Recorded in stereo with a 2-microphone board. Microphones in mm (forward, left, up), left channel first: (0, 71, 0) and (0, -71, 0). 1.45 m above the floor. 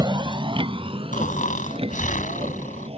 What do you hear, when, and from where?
0.0 s a vehicle: 30° right (ahead or behind); by 3.0 s 40° right (ahead or behind)
1.1 s snoring: 65° left (ahead or behind)